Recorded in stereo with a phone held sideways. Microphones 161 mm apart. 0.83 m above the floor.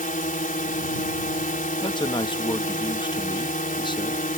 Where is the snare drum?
I don't hear a snare drum.